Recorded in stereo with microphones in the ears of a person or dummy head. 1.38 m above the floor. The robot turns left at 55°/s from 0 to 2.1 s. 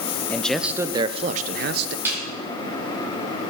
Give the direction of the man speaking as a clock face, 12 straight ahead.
12 o'clock.